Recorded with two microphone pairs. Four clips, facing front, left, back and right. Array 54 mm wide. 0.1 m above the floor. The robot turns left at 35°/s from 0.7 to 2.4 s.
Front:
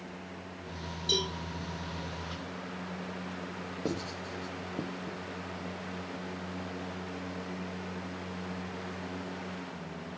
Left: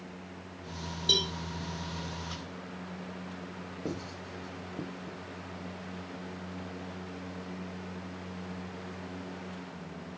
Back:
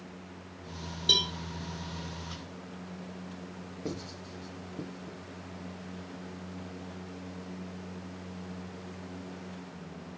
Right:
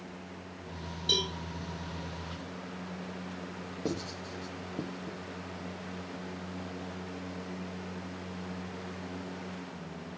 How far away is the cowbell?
About 3 m.